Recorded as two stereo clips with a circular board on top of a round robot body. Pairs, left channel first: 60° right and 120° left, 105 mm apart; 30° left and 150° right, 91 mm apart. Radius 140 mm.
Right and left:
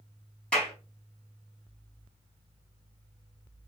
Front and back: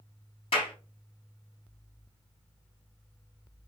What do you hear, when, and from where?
0.5 s a clap: 25° left, 4.5 m